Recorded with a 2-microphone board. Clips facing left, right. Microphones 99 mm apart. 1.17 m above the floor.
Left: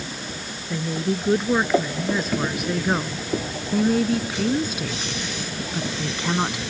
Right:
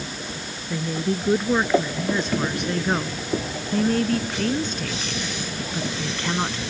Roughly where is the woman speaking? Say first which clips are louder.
Even; centre.